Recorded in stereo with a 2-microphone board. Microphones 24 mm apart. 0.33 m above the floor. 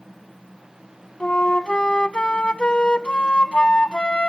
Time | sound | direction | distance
1.2 | a flute | 50° left (ahead or behind) | 0.5 m